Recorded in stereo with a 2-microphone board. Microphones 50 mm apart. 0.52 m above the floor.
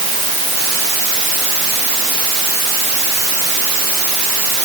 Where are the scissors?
I don't hear scissors.